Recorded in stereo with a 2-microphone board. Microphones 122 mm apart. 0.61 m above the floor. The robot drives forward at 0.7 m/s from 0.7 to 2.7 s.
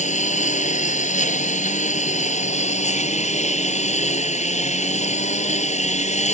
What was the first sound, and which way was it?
A lawn mower, 80° left.